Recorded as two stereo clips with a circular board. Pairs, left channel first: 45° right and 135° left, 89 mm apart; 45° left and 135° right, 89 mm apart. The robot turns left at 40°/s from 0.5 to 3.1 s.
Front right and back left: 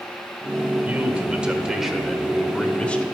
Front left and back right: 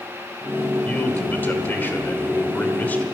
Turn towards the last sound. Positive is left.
turn(degrees=5)